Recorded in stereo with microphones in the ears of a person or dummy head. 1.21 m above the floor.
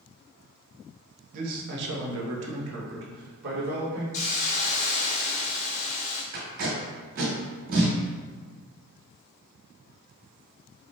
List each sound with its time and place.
1.3 s a man speaking: 45° right (ahead or behind), 1.0 m; by 4.0 s 50° right (ahead or behind), 1.7 m
4.1 s a hiss: 35° left (ahead or behind), 0.6 m
6.3 s tape being pulled: 55° right (ahead or behind), 1.9 m